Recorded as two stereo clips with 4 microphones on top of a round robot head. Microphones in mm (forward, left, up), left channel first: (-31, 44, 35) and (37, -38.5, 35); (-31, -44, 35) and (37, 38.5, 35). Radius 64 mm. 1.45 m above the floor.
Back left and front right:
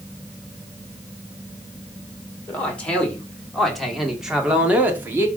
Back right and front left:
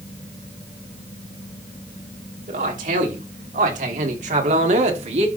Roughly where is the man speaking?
Ahead left.